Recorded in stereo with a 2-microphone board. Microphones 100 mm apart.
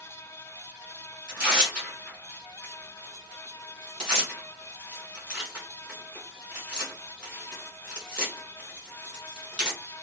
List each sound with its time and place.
1.3 s tearing paper: 10° right (ahead or behind), 1.8 m